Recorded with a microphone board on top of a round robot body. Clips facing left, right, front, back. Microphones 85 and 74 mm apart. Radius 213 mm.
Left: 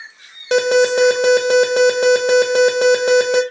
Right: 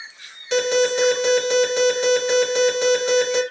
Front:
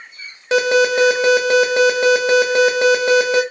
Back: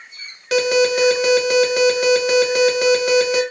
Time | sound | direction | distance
0.5 | an alarm | 60° left | 0.9 m